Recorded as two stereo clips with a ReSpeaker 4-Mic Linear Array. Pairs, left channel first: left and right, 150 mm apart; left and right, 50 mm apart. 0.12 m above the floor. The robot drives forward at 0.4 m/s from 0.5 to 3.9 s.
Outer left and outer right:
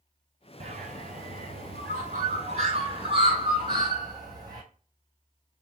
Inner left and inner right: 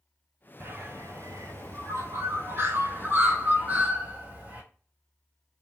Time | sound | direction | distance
0.6 | a bird | 50° right (ahead or behind) | 0.7 m